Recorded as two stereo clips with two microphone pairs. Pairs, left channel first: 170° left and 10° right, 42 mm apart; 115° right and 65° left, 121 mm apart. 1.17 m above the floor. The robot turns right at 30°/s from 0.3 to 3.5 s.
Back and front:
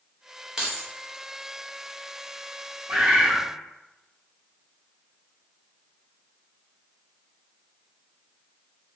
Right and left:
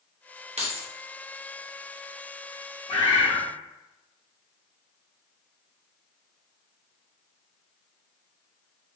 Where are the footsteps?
No footsteps in this recording.